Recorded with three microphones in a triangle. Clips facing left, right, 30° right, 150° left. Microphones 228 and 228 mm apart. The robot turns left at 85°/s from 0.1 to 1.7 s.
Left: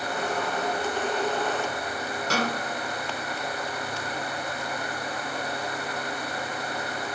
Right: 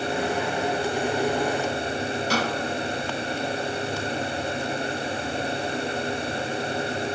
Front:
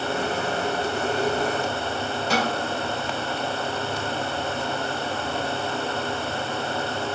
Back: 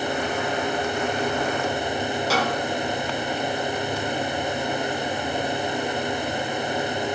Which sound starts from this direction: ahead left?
A snare drum, at 2.3 s.